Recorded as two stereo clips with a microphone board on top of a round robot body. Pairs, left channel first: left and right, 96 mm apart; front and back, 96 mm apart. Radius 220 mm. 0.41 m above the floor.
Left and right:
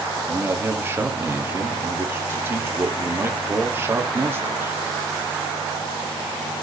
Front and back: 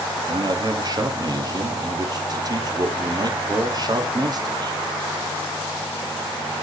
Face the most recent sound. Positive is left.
turn(degrees=-150)